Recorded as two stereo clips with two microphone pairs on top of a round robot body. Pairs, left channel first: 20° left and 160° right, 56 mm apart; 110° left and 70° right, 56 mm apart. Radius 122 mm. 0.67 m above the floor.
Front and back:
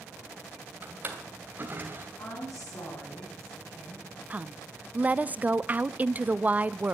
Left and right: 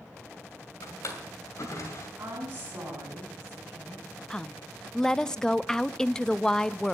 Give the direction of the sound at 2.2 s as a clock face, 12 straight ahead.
12 o'clock.